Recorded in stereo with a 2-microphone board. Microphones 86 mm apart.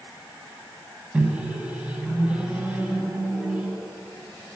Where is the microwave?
10° right (ahead or behind), 1.4 m.